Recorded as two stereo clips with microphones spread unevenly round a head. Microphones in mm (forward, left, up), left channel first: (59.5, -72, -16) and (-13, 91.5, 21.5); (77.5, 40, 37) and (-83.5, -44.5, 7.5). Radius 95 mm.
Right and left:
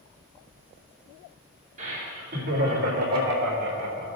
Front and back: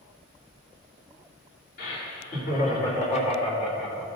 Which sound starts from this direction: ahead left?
Laughter, at 1.8 s.